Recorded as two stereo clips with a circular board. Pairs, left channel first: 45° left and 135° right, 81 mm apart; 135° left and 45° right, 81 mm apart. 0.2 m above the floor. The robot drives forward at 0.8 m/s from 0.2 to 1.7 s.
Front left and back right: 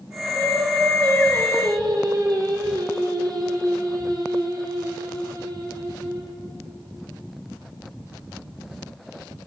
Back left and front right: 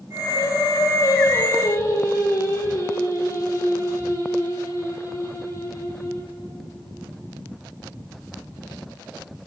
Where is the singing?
170° right, 3.5 m.